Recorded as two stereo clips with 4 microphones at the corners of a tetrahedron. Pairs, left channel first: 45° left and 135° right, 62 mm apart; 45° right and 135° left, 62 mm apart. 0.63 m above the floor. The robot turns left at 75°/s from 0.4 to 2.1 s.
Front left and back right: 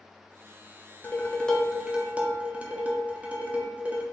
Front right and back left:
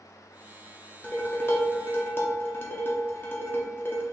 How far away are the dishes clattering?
About 0.6 m.